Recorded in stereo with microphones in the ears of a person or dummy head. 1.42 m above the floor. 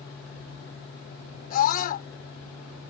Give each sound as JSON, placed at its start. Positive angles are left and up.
{"t": 1.5, "sound": "a scream", "side_deg": 50}